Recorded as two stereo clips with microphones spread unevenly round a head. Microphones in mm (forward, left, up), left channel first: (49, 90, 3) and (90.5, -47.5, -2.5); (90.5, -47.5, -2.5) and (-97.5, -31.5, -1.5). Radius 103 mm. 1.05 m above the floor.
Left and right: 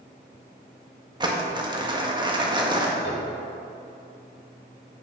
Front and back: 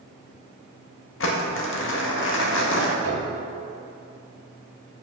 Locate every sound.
1.2 s crumpling: 15° right, 1.6 m
3.0 s a piano: 145° left, 2 m